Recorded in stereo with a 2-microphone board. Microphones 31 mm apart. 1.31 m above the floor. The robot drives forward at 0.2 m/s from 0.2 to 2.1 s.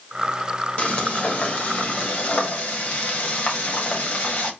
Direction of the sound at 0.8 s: 55° left (ahead or behind).